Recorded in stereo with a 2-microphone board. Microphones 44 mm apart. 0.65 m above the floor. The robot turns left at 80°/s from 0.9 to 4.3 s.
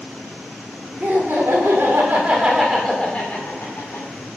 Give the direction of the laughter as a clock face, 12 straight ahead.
2 o'clock.